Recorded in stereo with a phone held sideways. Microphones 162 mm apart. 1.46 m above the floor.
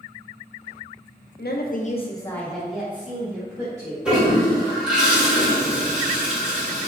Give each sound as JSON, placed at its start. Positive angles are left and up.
{"t": 1.4, "sound": "a woman speaking", "side_deg": 80, "distance_m": 0.6}
{"t": 4.0, "sound": "a toilet flushing", "side_deg": -5, "distance_m": 1.0}